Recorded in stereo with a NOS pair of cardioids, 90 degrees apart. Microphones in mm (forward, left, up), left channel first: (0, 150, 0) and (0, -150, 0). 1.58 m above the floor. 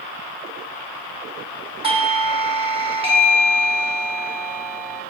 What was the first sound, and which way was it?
A doorbell, 20° right.